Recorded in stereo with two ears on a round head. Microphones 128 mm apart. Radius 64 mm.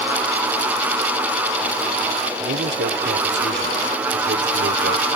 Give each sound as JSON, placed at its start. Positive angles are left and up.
{"t": 2.4, "sound": "a man speaking", "side_deg": -90}